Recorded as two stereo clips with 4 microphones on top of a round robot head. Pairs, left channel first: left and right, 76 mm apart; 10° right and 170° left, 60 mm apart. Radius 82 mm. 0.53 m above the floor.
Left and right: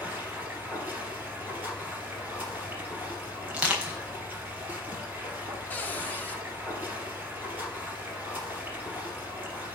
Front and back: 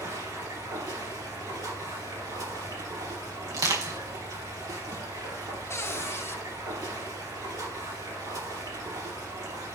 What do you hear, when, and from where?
0.0 s running water: 160° right, 4 m
3.5 s crushing: 165° right, 3.5 m
5.7 s a cupboard door: 25° left, 1.3 m